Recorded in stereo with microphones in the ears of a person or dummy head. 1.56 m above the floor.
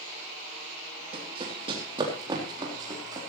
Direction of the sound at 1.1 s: 35° right (ahead or behind).